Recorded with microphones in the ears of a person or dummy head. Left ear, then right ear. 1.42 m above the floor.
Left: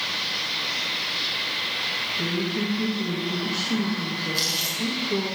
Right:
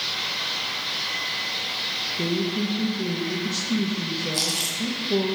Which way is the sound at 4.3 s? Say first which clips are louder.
Left 1 dB; 40° right (ahead or behind).